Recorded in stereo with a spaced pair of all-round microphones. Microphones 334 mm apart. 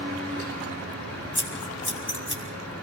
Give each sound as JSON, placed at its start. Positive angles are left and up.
{"t": 0.0, "sound": "a fan", "side_deg": -45, "distance_m": 7.0}
{"t": 1.4, "sound": "scissors", "side_deg": 35, "distance_m": 4.5}